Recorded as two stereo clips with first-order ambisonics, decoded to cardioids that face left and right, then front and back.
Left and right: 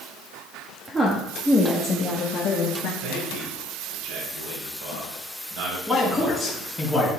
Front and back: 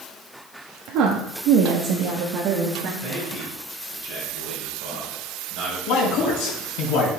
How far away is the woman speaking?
About 1.1 m.